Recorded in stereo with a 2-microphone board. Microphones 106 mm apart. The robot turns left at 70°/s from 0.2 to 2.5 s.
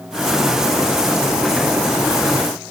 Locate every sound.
Only background noise.